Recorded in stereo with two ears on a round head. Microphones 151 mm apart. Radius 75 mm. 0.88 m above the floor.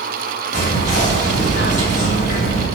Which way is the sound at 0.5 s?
40° left (ahead or behind).